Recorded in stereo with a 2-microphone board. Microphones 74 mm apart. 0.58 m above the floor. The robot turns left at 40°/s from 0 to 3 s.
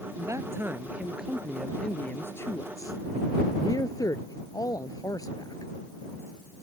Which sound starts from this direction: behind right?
A man speaking, at 0.2 s.